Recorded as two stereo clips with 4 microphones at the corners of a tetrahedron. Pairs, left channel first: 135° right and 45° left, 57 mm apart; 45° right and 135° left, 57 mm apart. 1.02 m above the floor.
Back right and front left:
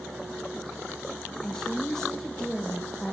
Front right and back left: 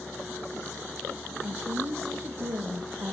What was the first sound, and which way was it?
A woman speaking, 145° left.